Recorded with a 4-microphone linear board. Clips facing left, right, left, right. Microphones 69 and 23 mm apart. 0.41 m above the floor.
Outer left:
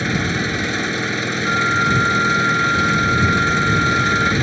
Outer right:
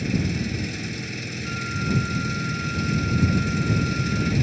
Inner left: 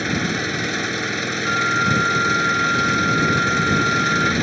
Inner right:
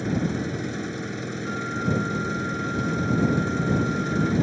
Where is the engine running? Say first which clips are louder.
Outer left 6 dB, inner left 5 dB; 75° left (ahead or behind).